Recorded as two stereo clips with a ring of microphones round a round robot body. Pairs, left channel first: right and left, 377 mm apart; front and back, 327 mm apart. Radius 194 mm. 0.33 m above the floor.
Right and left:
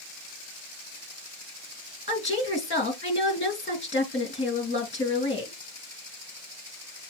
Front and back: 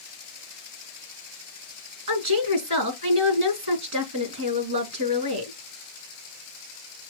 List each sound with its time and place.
2.1 s a woman speaking: 165° right, 3.5 m